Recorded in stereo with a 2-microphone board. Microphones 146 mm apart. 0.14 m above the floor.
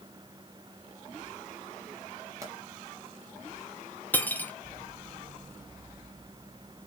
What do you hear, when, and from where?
2.4 s a pop: 20° right (ahead or behind), 2.5 m
4.1 s cutlery clinking: 15° left (ahead or behind), 0.8 m